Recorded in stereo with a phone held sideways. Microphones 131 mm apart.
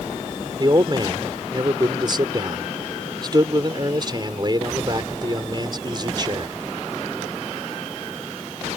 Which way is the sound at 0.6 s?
35° right (ahead or behind).